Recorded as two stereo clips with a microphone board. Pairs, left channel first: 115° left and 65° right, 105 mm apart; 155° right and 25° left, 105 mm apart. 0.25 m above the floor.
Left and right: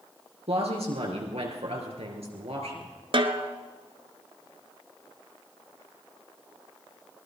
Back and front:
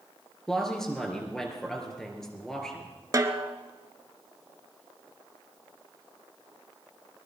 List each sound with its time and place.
0.5 s a woman speaking: 70° right, 3.5 m
3.1 s a snare drum: 35° right, 1.1 m